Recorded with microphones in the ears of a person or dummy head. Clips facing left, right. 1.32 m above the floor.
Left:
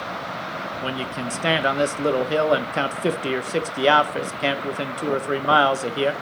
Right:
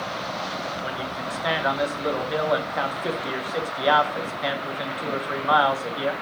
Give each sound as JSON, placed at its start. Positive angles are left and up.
{"t": 0.8, "sound": "a man speaking", "side_deg": 40, "distance_m": 0.8}